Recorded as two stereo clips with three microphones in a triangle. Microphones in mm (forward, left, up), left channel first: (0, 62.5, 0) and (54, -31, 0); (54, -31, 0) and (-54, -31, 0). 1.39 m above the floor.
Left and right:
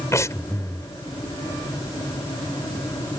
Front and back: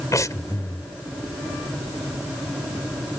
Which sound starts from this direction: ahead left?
Breathing, at 0.1 s.